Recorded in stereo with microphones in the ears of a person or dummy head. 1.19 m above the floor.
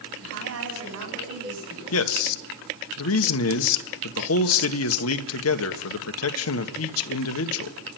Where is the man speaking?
75° left (ahead or behind), 1.5 m.